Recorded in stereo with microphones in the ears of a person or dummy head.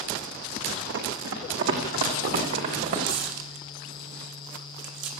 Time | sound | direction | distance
0.9 | running footsteps | 65° right (ahead or behind) | 5.5 m
3.0 | tearing paper | 65° right (ahead or behind) | 3.5 m